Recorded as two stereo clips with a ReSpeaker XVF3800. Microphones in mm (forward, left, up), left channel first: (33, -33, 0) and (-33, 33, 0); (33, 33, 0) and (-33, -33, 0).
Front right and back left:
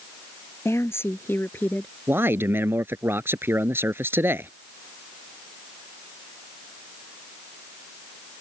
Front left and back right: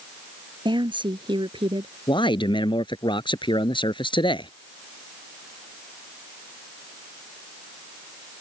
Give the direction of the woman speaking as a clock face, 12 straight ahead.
3 o'clock.